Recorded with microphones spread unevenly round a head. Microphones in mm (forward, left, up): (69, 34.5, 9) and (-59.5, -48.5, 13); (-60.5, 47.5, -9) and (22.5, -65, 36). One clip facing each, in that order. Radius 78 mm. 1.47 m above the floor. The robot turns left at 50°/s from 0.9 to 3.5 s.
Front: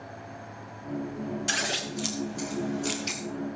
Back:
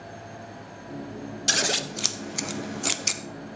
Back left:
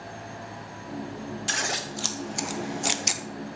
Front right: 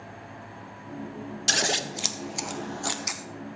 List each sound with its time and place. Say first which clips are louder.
1.5 s scissors: back 3 dB, front right 7 dB; 100° right, 0.8 m; by 3.2 s 170° left, 0.8 m